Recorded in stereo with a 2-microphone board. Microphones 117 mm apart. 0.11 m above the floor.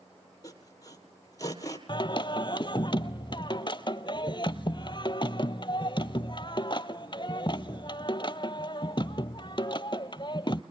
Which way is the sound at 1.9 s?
45° left (ahead or behind).